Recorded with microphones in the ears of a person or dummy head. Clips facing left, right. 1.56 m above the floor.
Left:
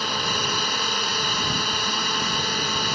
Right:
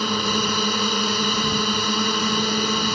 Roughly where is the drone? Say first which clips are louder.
Right 5 dB; right.